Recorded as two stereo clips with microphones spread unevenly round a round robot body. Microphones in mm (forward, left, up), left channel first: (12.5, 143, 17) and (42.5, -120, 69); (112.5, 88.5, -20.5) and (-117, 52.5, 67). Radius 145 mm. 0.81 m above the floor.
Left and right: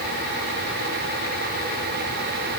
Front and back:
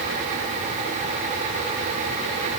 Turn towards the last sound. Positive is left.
No sound to turn to.